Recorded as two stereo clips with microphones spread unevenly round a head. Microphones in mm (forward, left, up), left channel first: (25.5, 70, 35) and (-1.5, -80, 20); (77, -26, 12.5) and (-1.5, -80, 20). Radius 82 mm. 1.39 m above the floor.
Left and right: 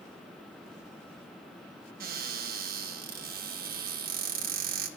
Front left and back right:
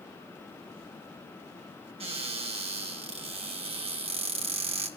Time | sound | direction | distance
2.0 | a cupboard door | 130° right | 2 m